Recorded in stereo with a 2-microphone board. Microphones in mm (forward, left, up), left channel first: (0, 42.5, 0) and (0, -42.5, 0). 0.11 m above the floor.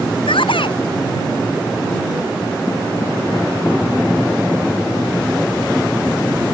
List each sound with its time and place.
0.3 s a shout: 80° left